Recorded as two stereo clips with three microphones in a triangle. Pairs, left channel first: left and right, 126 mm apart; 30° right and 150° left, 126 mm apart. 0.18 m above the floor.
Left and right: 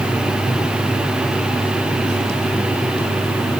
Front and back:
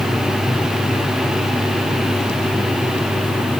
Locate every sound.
Only background noise.